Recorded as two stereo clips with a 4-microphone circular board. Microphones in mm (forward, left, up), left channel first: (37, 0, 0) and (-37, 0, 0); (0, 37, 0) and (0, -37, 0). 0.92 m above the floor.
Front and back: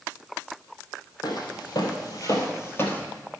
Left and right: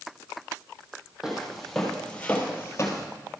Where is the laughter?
No laughter in this recording.